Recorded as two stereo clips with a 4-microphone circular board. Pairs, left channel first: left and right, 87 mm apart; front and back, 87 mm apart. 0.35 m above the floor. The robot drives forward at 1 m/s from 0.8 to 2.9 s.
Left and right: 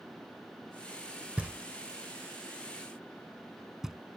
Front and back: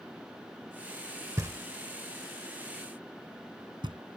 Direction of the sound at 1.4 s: 155° right.